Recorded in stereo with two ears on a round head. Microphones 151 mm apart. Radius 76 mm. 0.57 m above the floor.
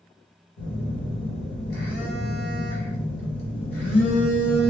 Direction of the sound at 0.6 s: 60° left (ahead or behind).